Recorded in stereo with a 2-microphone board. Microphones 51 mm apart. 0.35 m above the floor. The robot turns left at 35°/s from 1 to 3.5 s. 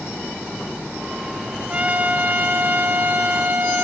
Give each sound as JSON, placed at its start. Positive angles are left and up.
{"t": 1.7, "sound": "a trumpet", "azimuth_deg": -45, "distance_m": 0.9}